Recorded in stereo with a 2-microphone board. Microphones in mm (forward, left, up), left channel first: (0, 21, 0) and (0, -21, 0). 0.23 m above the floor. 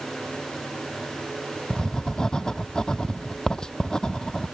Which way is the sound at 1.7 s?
15° left (ahead or behind).